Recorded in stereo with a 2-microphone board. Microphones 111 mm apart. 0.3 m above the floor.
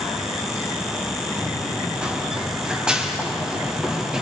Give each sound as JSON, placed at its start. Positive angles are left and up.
{"t": 1.4, "sound": "running footsteps", "side_deg": -10, "distance_m": 3.5}